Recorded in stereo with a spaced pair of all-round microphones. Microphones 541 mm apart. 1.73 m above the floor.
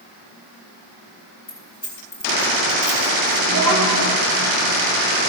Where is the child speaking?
45° left (ahead or behind), 2 m.